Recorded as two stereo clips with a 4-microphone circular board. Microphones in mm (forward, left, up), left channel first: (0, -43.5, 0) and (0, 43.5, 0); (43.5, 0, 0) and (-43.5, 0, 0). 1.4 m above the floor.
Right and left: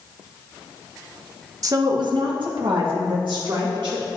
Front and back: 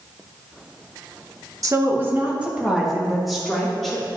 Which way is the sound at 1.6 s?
135° left.